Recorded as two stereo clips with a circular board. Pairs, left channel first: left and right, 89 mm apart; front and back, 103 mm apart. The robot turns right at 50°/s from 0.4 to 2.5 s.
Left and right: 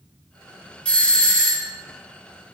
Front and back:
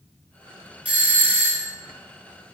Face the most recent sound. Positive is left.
turn(degrees=-140)